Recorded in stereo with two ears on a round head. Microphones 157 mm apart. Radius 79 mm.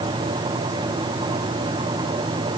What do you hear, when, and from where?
Only background noise.